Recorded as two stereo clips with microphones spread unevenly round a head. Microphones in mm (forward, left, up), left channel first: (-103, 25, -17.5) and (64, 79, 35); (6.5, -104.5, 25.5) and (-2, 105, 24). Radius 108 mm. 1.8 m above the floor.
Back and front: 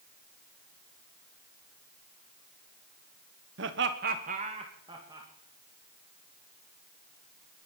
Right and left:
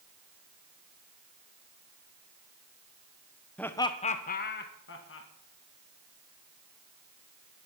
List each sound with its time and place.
3.6 s laughter: 5° right, 1.3 m; by 5.3 s 55° right, 2.5 m